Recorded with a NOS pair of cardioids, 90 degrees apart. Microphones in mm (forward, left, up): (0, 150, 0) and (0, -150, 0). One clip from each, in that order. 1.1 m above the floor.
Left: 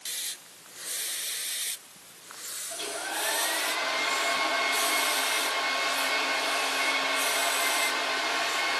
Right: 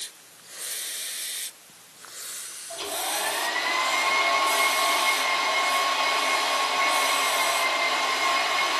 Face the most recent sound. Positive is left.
turn(degrees=-65)